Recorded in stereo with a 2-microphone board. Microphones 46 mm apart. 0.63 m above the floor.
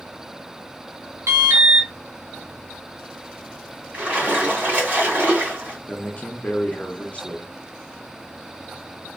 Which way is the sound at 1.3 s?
70° right (ahead or behind).